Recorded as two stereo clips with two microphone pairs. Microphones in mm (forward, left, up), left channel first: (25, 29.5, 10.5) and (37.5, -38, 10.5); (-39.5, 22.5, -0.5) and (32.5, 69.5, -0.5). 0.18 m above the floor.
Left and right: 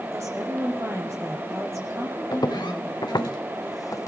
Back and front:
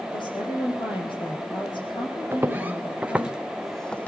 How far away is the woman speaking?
About 6 m.